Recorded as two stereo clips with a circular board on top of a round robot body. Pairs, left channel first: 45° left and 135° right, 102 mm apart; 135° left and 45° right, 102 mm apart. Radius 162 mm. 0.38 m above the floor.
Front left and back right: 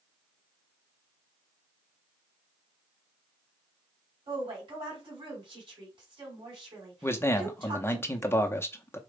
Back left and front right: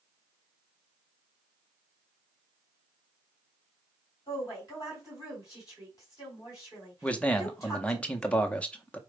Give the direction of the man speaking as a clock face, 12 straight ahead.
10 o'clock.